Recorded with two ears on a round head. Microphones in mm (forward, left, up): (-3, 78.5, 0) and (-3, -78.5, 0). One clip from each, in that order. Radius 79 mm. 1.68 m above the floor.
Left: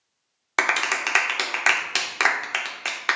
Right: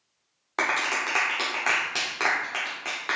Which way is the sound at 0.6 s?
60° left (ahead or behind).